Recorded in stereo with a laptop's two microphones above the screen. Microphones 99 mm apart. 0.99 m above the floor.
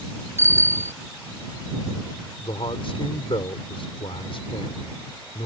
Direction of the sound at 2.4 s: 65° left (ahead or behind).